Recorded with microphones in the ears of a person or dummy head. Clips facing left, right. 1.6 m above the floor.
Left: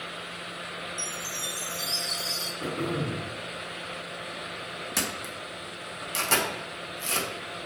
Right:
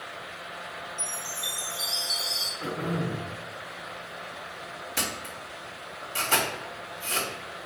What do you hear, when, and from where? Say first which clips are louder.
1.0 s a chime: left 1 dB; 60° left (ahead or behind), 3.5 m
2.6 s throat clearing: even; 70° left (ahead or behind), 2.5 m
5.0 s a camera shutter: even; 75° left (ahead or behind), 2 m